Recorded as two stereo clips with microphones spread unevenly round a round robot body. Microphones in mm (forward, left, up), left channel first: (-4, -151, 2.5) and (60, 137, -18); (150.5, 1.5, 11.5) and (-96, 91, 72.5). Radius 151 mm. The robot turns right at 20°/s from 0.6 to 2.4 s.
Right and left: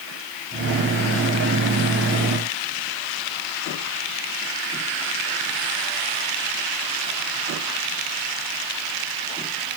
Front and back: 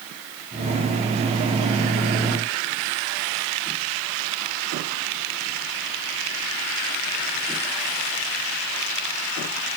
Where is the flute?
I don't hear a flute.